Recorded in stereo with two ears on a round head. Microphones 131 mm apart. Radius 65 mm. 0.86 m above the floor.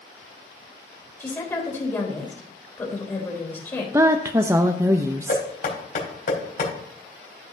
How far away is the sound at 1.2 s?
About 3.5 m.